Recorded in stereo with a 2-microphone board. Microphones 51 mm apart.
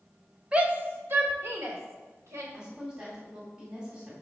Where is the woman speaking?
25° right (ahead or behind), 2.0 m.